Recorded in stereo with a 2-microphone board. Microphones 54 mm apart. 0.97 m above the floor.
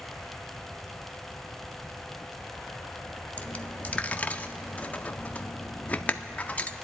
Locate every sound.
3.4 s a dropped coin: 30° left (ahead or behind), 0.6 m